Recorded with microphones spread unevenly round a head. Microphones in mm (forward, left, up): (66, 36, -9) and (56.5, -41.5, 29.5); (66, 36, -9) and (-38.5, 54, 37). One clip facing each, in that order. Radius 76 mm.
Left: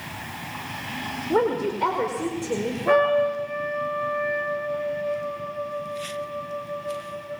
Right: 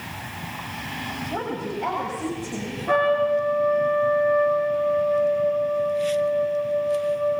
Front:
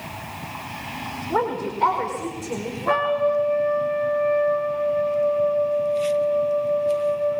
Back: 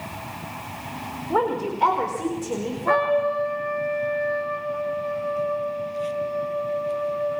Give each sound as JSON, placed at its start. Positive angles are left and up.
{"t": 1.3, "sound": "a woman speaking", "azimuth_deg": 90, "distance_m": 4.5}
{"t": 2.9, "sound": "a trumpet", "azimuth_deg": 70, "distance_m": 5.5}